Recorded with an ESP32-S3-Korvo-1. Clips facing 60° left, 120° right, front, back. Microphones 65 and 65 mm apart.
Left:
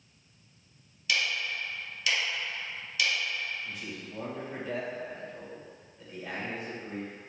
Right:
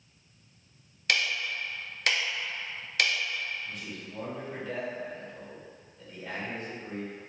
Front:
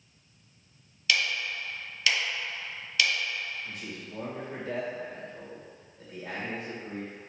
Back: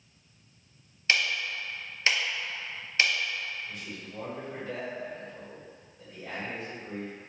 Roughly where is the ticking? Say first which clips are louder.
Right 1 dB, back 1 dB; behind right.